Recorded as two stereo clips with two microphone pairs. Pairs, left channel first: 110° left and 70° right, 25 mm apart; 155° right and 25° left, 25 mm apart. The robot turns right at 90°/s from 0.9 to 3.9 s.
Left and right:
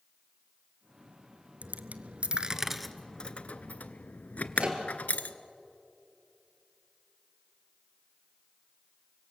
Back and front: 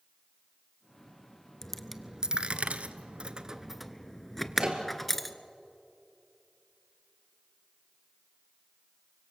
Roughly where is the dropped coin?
Right.